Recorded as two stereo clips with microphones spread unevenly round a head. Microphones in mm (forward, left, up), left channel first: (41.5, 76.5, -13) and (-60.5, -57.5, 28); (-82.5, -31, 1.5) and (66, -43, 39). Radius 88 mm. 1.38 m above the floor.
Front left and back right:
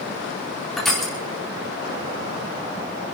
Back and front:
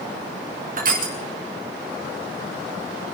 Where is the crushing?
35° right, 3.5 m.